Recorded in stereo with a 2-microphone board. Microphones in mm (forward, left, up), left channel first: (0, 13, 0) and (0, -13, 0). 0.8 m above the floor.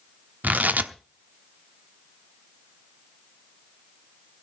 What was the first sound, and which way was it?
Tearing paper, 80° right.